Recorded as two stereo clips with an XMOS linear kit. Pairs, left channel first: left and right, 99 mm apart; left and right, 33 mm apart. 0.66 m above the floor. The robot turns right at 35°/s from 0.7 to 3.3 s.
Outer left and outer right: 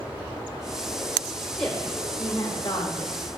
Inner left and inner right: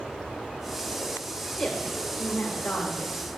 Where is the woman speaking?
5° left, 1.6 m; by 3.2 s 65° left, 1.6 m.